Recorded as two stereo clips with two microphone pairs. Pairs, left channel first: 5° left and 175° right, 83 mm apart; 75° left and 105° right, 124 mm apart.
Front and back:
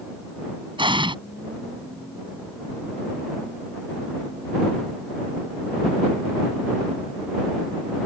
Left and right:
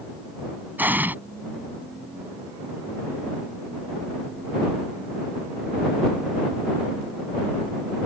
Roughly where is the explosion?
Behind.